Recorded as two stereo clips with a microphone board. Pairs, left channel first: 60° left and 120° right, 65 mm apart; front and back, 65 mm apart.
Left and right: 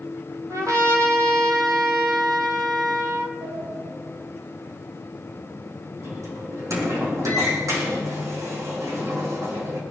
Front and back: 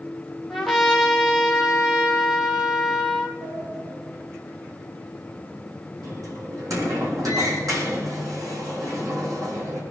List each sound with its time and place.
0.5 s a trumpet: 90° right, 3 m
3.4 s a sliding door: 155° right, 6 m